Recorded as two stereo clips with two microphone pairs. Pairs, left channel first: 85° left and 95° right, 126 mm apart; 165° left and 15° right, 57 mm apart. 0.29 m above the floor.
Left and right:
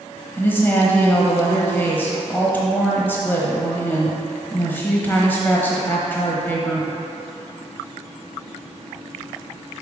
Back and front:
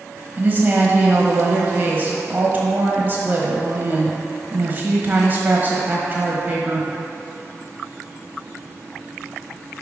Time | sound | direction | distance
0.4 | a woman speaking | 25° left | 1.2 m